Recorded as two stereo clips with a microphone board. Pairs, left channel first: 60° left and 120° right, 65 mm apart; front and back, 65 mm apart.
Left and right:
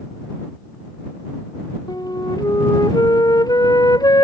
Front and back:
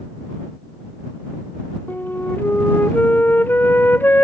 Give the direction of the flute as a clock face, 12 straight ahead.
10 o'clock.